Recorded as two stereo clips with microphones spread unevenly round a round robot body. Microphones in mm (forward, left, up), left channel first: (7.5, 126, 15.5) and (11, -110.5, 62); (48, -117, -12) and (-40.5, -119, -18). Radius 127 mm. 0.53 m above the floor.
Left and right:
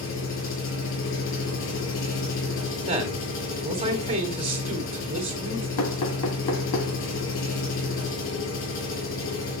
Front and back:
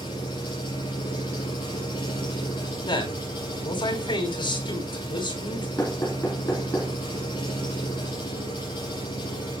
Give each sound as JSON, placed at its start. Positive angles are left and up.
{"t": 0.0, "sound": "an engine running", "azimuth_deg": 55, "distance_m": 5.5}
{"t": 2.9, "sound": "a man speaking", "azimuth_deg": -20, "distance_m": 3.0}
{"t": 5.8, "sound": "knocking", "azimuth_deg": 80, "distance_m": 3.0}